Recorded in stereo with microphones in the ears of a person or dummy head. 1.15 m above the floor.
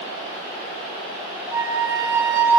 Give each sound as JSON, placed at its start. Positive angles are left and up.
{"t": 1.5, "sound": "a flute", "side_deg": -10, "distance_m": 1.5}